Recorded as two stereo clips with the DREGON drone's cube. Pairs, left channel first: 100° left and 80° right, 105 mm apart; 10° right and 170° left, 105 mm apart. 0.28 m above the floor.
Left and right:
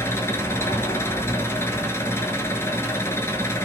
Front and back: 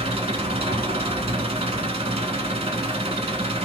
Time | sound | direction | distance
0.0 | an engine running | 165° left | 0.7 m